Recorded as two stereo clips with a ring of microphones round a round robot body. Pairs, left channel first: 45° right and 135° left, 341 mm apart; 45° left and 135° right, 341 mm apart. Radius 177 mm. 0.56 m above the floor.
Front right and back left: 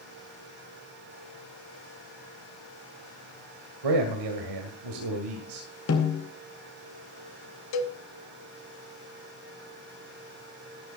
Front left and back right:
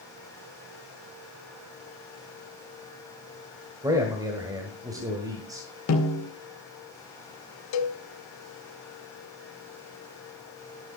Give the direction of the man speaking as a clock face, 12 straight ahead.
7 o'clock.